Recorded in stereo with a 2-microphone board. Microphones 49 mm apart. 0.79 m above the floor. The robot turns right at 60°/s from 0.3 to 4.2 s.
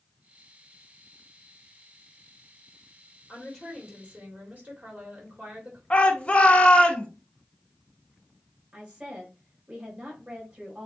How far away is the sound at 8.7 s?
About 3.5 m.